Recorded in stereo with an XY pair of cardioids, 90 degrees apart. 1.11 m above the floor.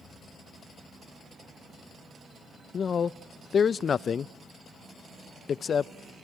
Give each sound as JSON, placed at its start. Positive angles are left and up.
{"t": 2.7, "sound": "a man speaking", "azimuth_deg": 50, "distance_m": 0.5}